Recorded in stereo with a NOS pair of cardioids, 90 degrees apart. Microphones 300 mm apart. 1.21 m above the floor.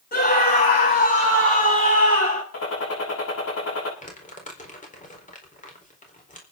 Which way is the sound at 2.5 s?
55° left.